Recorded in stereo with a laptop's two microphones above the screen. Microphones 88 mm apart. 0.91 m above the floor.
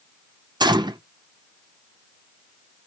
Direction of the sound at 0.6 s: 55° right (ahead or behind).